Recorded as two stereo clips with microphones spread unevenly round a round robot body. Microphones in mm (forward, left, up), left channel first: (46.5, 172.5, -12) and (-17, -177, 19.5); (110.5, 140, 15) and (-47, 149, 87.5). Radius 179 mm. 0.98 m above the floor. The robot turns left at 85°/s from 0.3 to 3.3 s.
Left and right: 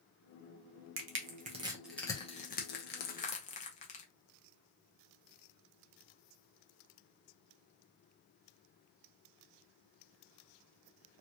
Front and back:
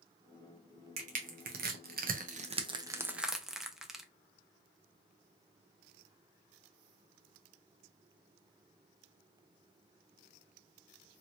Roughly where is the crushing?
Behind right.